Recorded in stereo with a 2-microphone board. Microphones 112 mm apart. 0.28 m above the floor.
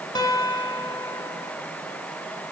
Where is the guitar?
40° left (ahead or behind), 2 m.